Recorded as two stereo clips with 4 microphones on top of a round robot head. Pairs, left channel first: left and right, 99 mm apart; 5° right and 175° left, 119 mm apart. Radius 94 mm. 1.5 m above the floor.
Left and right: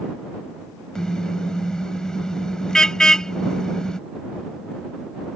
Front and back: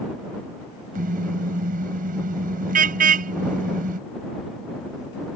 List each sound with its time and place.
0.9 s a car horn: 175° left